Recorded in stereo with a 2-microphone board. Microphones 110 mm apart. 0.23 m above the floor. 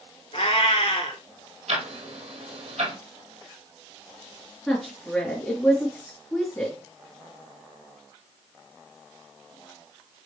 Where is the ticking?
85° right, 2.5 m.